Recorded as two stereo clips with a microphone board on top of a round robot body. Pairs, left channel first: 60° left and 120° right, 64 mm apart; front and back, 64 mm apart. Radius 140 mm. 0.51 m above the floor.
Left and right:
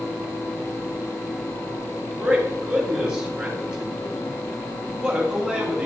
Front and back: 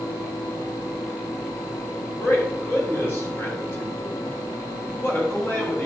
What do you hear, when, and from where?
2.2 s a man speaking: 45° right, 3 m